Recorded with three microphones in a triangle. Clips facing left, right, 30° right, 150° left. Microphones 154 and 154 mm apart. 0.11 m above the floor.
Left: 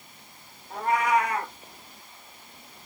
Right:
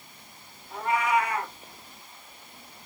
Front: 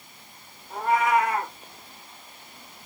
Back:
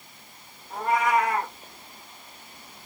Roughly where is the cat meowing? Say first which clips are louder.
Left 2 dB, front 1 dB; ahead left.